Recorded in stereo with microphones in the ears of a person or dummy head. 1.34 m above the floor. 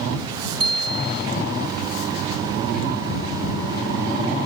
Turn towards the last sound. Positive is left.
turn(degrees=-25)  # may be behind; listen again after turning